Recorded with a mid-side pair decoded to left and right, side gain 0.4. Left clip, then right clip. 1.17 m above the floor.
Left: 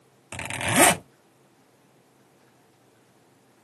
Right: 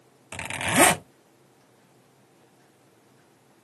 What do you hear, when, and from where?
0.3 s a zipper: 15° left, 1.6 m